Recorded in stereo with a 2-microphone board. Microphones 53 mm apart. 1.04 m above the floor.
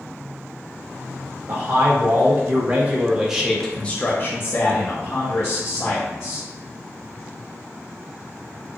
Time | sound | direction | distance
1.5 | a man speaking | 50° right (ahead or behind) | 1.2 m